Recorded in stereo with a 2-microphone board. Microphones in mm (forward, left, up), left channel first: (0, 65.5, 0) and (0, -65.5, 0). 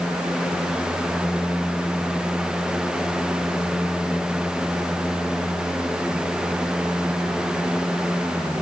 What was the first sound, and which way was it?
Only background noise.